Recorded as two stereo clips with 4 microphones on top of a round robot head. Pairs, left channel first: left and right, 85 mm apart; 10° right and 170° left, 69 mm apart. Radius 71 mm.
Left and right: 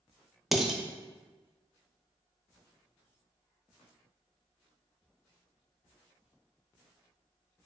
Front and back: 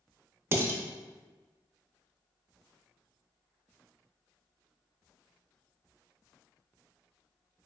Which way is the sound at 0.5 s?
175° right.